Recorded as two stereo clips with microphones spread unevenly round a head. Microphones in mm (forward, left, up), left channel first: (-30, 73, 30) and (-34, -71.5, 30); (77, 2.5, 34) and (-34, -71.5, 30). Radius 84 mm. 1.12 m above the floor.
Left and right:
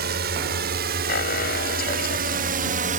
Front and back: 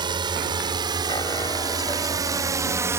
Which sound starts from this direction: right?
A drone, at 0.0 s.